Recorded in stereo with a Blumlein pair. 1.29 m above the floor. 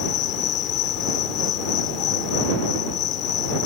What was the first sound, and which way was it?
An insect, 35° left.